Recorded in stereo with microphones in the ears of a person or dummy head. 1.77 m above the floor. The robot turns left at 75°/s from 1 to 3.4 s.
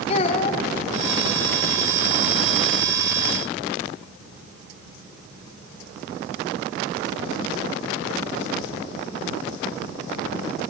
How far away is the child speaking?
About 2.5 m.